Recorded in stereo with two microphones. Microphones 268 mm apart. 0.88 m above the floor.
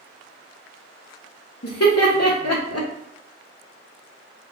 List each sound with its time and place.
1.6 s laughter: 60° left (ahead or behind), 0.8 m